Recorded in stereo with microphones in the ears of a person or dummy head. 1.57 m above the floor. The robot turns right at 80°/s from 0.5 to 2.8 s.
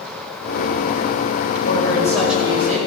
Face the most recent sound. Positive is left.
turn(degrees=-140)